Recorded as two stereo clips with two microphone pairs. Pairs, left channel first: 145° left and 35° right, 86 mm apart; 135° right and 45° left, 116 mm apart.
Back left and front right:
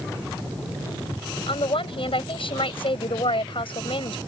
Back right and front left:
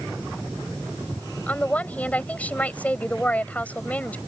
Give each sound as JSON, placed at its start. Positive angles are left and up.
{"t": 1.5, "sound": "a woman speaking", "azimuth_deg": 145}